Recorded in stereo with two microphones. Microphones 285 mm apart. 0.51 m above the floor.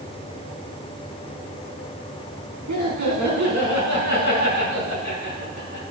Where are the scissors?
No scissors in this recording.